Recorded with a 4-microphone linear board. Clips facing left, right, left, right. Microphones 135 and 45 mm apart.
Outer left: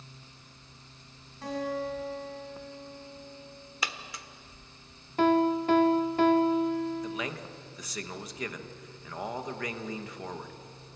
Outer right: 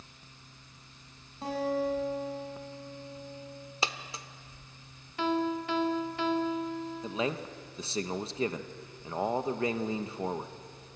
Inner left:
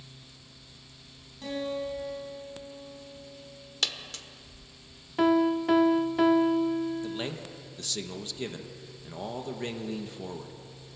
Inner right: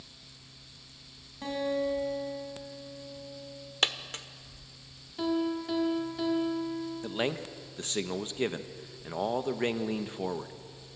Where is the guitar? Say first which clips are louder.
Outer right 2 dB, inner right 2 dB; 25° right (ahead or behind), 5.5 m.